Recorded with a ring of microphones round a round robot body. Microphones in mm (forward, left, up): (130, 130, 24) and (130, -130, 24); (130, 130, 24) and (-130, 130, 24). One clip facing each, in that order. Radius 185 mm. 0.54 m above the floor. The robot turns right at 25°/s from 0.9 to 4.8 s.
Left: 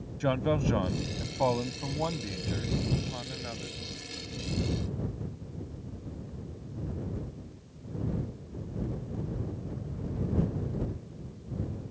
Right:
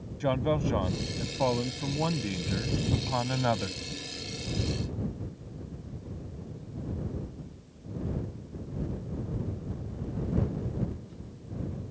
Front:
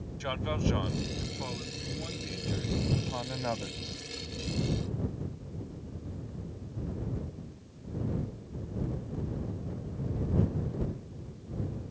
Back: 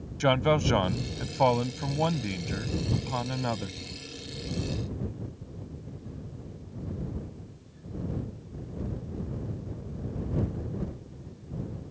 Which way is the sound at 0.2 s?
175° left.